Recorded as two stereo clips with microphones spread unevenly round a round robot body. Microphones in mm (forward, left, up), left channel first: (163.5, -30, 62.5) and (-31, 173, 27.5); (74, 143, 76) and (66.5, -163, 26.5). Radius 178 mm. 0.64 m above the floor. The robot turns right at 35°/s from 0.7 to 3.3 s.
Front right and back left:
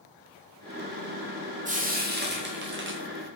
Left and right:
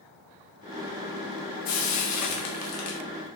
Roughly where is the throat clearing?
No throat clearing in this recording.